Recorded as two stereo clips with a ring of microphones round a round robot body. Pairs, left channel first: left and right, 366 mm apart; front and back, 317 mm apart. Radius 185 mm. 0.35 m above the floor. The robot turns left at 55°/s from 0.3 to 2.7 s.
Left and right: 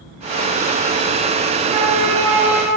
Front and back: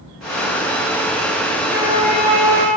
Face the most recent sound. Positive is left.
turn(degrees=-170)